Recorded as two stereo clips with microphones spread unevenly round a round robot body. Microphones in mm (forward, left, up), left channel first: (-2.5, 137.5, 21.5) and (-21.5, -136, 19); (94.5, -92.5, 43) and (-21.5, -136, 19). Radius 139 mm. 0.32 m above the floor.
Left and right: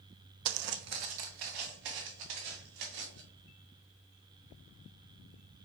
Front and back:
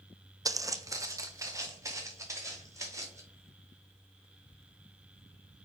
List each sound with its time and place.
0.5 s footsteps: 90° right, 0.6 m; by 3.2 s 95° right, 4 m